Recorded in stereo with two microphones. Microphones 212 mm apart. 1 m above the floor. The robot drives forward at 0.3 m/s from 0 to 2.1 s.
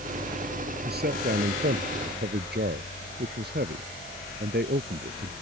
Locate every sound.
0.8 s a man speaking: 50° right (ahead or behind)